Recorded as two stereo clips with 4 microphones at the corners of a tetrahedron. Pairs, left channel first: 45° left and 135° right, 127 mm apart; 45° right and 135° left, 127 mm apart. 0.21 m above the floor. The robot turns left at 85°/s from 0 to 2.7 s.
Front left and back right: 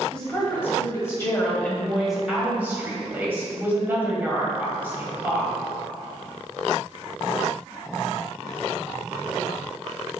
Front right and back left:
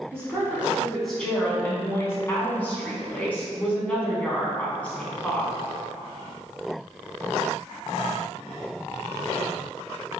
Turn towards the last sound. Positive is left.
turn(degrees=-100)